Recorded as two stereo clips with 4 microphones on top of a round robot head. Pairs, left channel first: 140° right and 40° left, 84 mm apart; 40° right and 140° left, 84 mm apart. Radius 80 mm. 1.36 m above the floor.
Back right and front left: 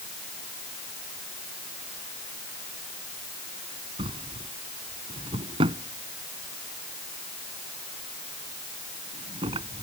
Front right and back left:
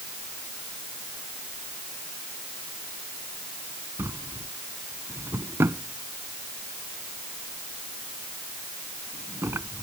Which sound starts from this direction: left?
A drawer, at 4.0 s.